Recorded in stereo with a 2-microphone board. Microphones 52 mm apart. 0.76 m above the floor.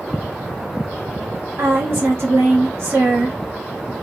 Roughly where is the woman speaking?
Right.